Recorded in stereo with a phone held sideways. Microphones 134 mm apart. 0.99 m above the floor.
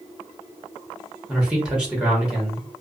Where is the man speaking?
5° right (ahead or behind), 1.1 m.